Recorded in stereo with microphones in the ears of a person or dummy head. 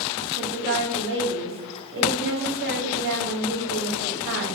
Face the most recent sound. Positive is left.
turn(degrees=-55)  # may be behind; listen again after turning